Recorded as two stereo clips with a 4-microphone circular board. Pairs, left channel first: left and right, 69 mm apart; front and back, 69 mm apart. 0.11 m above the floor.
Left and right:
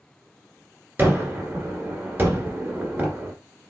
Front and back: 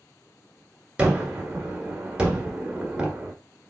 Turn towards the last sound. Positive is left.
turn(degrees=-120)